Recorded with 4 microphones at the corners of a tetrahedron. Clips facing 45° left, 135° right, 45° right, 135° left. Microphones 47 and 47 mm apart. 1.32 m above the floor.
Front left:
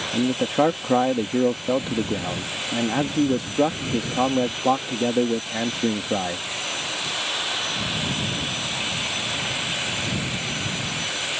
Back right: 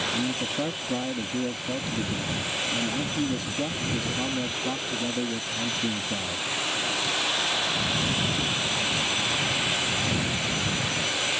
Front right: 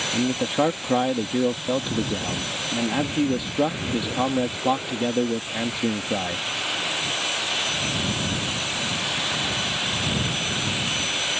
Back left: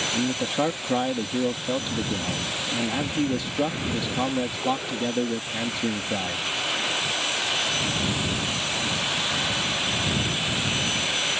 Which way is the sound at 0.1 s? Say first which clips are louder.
Front left 7 dB, front right 4 dB; 30° left.